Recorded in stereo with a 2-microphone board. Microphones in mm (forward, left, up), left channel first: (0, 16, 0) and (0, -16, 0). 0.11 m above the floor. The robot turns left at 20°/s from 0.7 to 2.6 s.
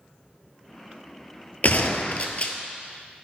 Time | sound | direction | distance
1.6 | a gunshot | 55° left (ahead or behind) | 0.8 m